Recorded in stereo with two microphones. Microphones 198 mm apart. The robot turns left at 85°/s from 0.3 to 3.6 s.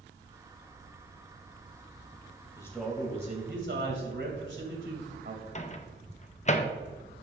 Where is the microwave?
35° left (ahead or behind), 0.6 m.